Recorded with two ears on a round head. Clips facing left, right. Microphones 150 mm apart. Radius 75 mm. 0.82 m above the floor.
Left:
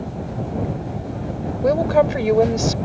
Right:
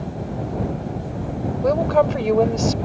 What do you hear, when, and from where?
1.6 s a woman speaking: 10° left (ahead or behind)